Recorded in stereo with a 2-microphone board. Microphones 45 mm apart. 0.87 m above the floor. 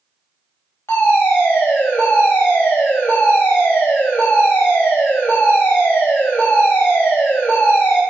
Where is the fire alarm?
70° left (ahead or behind), 3.5 m.